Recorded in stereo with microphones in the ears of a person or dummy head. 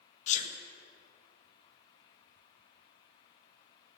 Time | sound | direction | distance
0.3 | a sneeze | 35° left (ahead or behind) | 0.6 m